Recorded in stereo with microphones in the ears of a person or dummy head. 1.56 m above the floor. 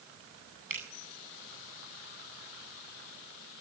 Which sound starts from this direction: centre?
A finger snap, at 0.7 s.